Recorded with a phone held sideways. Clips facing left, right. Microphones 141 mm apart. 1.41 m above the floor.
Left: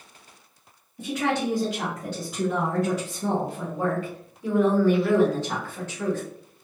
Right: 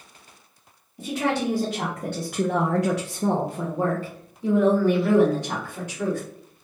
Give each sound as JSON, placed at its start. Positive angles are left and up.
{"t": 1.0, "sound": "a woman speaking", "side_deg": -30, "distance_m": 1.1}